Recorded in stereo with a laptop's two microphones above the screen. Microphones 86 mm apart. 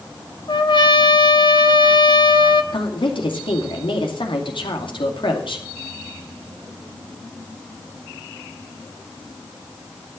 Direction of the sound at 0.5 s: 60° left (ahead or behind).